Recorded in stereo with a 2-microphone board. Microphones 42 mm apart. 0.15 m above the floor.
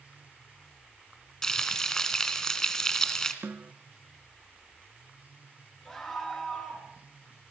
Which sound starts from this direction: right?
A snare drum, at 3.4 s.